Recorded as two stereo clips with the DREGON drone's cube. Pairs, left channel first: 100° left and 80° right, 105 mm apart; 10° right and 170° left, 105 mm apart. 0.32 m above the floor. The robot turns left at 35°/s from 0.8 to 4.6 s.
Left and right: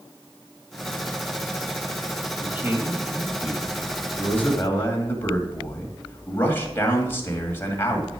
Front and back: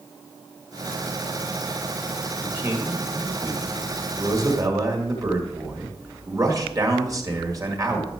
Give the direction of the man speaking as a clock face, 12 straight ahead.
4 o'clock.